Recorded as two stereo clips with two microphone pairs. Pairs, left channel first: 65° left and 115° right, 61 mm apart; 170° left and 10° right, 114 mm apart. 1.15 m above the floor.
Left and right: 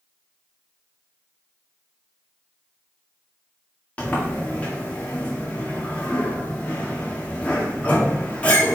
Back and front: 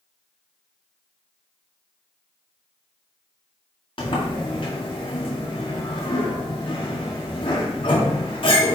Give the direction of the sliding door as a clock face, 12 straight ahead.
8 o'clock.